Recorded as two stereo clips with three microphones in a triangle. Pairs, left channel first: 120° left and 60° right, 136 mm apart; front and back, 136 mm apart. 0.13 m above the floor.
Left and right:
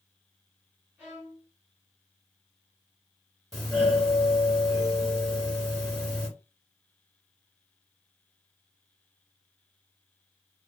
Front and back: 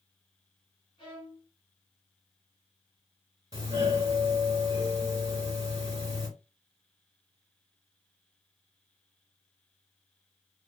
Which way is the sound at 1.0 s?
5° left.